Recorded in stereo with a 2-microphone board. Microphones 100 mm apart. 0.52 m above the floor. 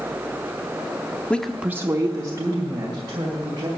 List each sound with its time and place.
1.3 s a woman speaking: 15° left (ahead or behind), 0.6 m; by 3.7 s 45° right (ahead or behind), 2.5 m